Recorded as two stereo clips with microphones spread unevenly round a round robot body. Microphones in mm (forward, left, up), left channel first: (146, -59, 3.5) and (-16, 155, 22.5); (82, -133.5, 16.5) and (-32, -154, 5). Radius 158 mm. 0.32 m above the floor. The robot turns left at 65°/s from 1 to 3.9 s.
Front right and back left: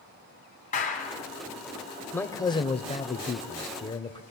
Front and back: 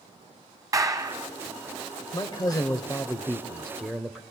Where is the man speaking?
20° left, 0.9 m; by 4.2 s 95° right, 0.9 m.